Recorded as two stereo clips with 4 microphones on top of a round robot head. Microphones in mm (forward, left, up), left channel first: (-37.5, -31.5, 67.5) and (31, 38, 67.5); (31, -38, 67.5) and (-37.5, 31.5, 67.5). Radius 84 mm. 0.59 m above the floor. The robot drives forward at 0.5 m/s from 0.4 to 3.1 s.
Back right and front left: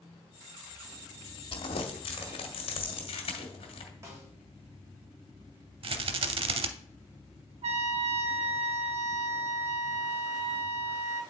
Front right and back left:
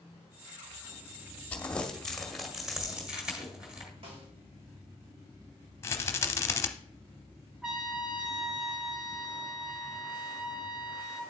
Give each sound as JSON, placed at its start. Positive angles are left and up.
{"t": 1.5, "sound": "crumpling", "azimuth_deg": -120, "distance_m": 1.3}
{"t": 4.0, "sound": "a snare drum", "azimuth_deg": 105, "distance_m": 2.5}
{"t": 5.8, "sound": "a rattle", "azimuth_deg": 20, "distance_m": 0.7}
{"t": 7.6, "sound": "a trumpet", "azimuth_deg": 50, "distance_m": 0.9}